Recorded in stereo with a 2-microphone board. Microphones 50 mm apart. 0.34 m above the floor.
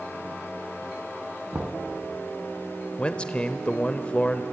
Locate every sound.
1.5 s knocking: 30° right (ahead or behind), 2.5 m
3.0 s a man speaking: 20° left (ahead or behind), 0.9 m